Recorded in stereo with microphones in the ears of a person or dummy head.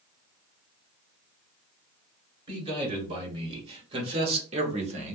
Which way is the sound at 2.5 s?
25° right (ahead or behind).